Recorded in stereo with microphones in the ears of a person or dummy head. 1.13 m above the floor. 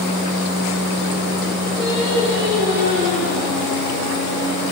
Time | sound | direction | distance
1.8 | singing | 70° right (ahead or behind) | 3.5 m